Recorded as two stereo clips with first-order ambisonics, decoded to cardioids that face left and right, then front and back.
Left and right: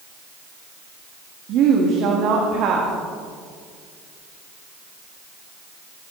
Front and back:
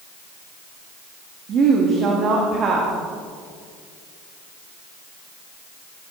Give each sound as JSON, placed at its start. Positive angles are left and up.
{"t": 1.5, "sound": "a woman speaking", "azimuth_deg": -130, "distance_m": 1.7}